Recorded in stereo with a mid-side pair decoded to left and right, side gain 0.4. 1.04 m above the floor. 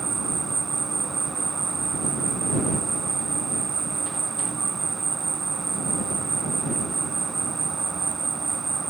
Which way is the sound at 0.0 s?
35° right.